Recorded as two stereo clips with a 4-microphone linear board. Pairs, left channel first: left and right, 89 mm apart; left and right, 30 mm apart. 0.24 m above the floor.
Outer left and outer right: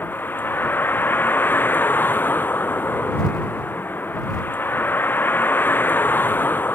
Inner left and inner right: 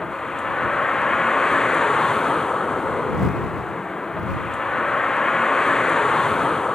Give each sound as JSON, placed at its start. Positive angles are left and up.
{"t": 0.0, "sound": "a vehicle", "side_deg": 20}